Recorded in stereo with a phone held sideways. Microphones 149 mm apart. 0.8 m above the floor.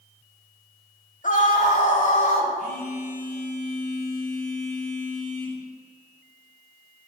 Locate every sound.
1.2 s a scream: 60° left (ahead or behind), 1.9 m; by 2.5 s 55° left (ahead or behind), 3 m
2.6 s a phone buzzing: 65° left (ahead or behind), 4 m